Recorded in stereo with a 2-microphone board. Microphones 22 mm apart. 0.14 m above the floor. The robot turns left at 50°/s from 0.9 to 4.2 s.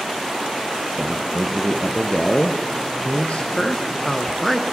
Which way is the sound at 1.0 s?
160° right.